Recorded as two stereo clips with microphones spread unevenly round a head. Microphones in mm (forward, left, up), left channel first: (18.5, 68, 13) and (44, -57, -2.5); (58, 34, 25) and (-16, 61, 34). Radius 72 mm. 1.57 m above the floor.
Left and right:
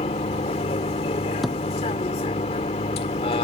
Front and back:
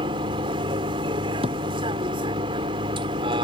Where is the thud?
170° right.